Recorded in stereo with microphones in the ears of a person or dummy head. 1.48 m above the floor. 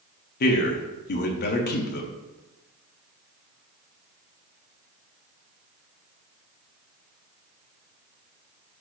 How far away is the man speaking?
About 0.7 m.